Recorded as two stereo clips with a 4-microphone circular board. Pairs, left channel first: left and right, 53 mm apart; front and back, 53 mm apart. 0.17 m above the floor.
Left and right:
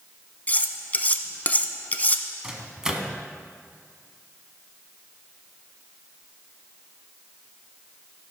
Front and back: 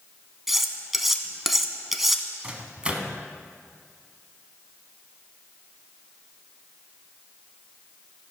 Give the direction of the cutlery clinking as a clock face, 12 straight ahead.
9 o'clock.